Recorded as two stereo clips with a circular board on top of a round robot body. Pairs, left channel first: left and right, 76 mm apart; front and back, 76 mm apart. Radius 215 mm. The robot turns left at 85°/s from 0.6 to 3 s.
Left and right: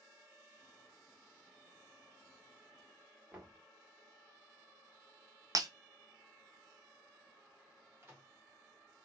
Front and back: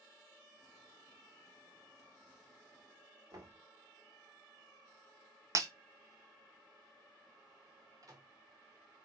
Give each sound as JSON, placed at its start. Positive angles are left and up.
{"t": 3.3, "sound": "knocking", "azimuth_deg": -160, "distance_m": 1.7}
{"t": 5.5, "sound": "breaking glass", "azimuth_deg": -130, "distance_m": 0.6}
{"t": 8.0, "sound": "a microwave", "azimuth_deg": -145, "distance_m": 1.5}